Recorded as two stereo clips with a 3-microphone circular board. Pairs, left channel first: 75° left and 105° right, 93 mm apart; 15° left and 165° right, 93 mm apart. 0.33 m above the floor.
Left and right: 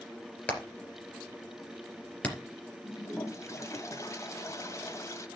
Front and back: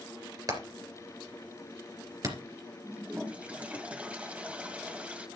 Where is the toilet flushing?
120° left, 1.6 m.